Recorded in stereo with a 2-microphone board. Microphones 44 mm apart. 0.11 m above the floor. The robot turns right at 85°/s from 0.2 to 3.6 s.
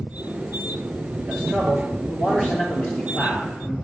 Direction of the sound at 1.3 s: 105° right.